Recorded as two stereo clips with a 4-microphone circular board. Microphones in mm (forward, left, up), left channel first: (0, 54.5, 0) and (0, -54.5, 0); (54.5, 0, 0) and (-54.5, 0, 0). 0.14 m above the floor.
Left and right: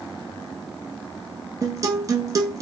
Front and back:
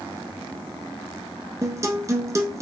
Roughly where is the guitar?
Behind right.